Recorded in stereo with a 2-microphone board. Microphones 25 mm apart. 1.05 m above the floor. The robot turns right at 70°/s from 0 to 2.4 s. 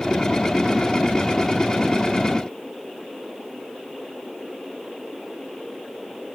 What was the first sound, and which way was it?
Only background noise.